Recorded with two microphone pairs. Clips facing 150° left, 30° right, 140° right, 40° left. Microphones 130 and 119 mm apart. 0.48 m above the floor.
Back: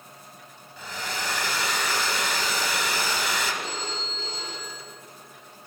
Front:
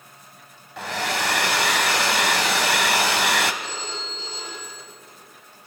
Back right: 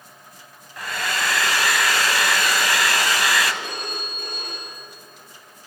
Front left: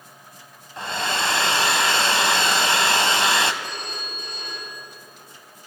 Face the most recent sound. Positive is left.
turn(degrees=-170)